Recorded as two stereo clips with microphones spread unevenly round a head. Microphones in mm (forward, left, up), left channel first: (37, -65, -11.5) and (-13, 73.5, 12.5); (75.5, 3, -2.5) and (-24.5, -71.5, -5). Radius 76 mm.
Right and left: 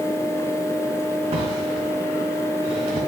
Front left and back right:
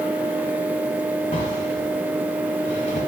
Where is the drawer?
75° left, 1.8 m.